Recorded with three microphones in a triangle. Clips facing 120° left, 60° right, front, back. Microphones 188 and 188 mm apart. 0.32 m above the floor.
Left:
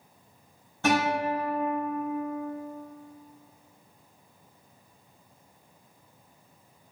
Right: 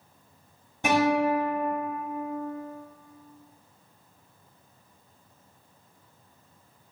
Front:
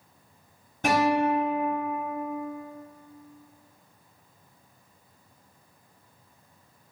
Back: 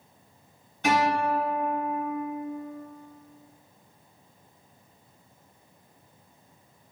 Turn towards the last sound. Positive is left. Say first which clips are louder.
# right 3 dB, front 2 dB
turn(degrees=10)